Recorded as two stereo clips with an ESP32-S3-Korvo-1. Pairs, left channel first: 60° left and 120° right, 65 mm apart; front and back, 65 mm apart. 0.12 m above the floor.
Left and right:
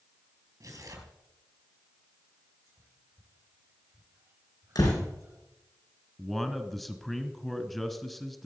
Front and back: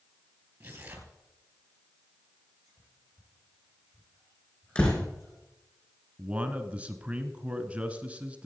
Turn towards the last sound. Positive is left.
turn(degrees=145)